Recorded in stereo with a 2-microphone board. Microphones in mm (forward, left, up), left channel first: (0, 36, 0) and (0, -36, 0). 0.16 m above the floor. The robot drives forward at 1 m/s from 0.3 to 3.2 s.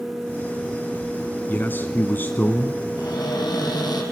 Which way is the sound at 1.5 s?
25° left (ahead or behind).